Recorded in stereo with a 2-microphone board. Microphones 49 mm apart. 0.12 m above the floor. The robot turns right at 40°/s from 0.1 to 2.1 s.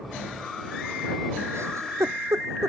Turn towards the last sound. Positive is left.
turn(degrees=-80)